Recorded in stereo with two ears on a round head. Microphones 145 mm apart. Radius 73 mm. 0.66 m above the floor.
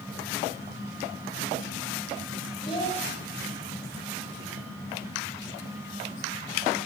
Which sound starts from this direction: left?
A child speaking, at 2.6 s.